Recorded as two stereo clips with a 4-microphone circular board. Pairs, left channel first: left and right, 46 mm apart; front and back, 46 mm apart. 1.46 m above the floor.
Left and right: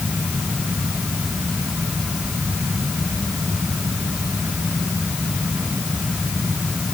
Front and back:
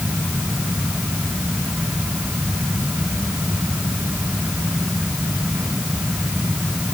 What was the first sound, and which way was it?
Only background noise.